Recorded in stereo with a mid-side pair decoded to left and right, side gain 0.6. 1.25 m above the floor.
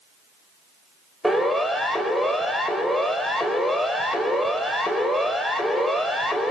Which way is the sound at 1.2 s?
Straight ahead.